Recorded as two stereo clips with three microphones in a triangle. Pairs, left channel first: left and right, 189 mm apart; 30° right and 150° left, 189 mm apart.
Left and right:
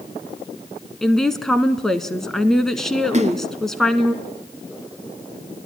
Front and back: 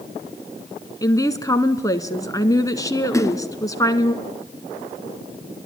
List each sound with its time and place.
1.0 s a woman speaking: 5° left, 1.3 m
3.1 s a splash: 95° right, 0.9 m